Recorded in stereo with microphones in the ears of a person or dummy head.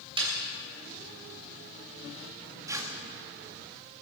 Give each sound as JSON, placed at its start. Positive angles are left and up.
{"t": 0.2, "sound": "a snare drum", "side_deg": -30, "distance_m": 3.0}
{"t": 2.7, "sound": "tearing paper", "side_deg": -20, "distance_m": 1.4}